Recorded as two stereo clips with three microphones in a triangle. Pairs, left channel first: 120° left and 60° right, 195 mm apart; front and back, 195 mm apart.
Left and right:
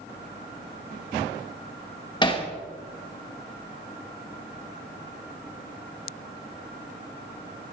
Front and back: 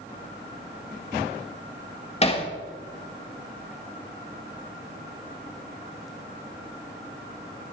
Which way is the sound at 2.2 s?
55° left.